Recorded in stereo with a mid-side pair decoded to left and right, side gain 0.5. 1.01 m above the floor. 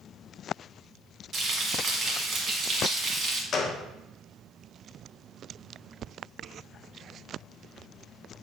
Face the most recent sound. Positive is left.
turn(degrees=50)